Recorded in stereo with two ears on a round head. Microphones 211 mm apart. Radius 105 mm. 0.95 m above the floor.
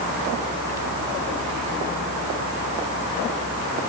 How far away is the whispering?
No whispering in this recording.